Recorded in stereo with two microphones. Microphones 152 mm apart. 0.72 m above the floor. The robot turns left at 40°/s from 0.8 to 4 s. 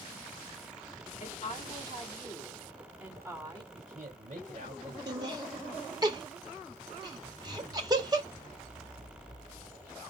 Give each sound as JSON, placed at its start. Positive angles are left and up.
{"t": 1.2, "sound": "a woman speaking", "azimuth_deg": 65, "distance_m": 1.9}
{"t": 3.7, "sound": "a man speaking", "side_deg": -40, "distance_m": 3.0}
{"t": 5.1, "sound": "laughter", "side_deg": -25, "distance_m": 1.4}
{"t": 7.2, "sound": "a zipper", "side_deg": 75, "distance_m": 1.0}